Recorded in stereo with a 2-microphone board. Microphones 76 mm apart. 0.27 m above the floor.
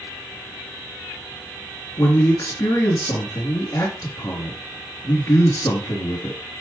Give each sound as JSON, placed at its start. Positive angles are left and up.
{"t": 2.0, "sound": "a man speaking", "side_deg": 60, "distance_m": 3.0}